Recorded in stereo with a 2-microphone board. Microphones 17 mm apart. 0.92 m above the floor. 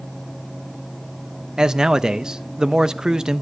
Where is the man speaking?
50° right (ahead or behind), 0.5 m.